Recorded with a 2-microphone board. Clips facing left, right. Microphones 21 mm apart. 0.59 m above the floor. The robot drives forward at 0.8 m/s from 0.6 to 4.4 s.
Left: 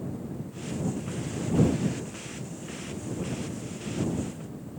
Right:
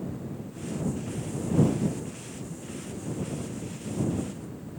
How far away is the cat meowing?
No cat meowing in this recording.